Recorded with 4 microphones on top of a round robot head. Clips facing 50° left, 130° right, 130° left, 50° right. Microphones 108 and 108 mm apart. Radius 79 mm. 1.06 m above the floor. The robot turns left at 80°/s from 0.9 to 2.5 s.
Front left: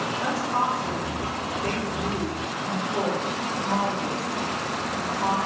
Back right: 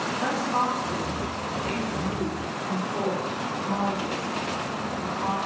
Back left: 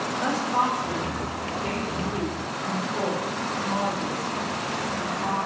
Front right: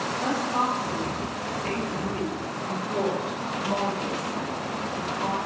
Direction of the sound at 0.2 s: 110° left.